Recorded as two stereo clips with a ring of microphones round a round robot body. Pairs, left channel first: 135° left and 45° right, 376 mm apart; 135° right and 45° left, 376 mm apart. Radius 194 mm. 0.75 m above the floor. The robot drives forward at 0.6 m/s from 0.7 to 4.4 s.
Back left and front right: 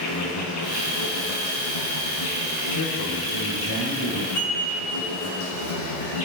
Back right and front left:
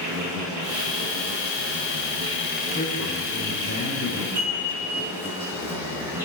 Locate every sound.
0.0 s an insect: 90° left, 3 m; by 6.3 s 130° left, 3.5 m
2.7 s a man speaking: 155° left, 3.5 m; by 4.2 s 160° left, 4.5 m
4.3 s dishes clattering: 105° left, 5.5 m